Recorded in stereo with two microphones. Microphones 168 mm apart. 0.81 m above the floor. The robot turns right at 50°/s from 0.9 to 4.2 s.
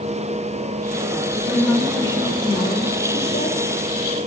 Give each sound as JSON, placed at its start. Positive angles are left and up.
{"t": 1.4, "sound": "a woman speaking", "azimuth_deg": -5, "distance_m": 3.5}